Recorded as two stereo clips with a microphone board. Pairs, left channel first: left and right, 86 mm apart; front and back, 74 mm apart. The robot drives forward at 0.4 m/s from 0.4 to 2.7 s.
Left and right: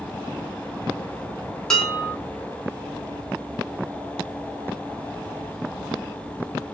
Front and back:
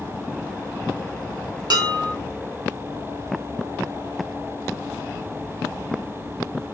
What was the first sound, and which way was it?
Dishes clattering, 175° left.